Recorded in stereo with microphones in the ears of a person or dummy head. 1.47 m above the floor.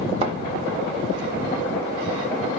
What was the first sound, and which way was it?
A thud, 35° right (ahead or behind).